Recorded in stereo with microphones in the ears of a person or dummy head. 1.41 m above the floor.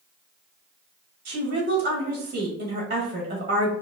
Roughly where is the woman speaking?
Right.